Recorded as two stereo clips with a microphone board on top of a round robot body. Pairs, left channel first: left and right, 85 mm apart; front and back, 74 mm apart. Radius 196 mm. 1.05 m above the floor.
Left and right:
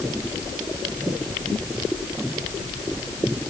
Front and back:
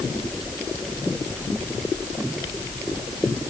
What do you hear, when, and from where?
Only background noise.